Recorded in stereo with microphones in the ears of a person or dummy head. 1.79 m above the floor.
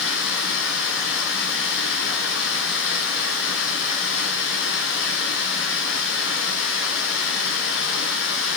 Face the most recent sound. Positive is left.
turn(degrees=80)